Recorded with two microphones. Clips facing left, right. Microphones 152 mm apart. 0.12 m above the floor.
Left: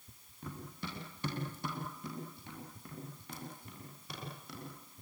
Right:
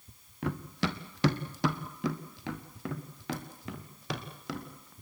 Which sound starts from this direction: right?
Running footsteps, at 0.4 s.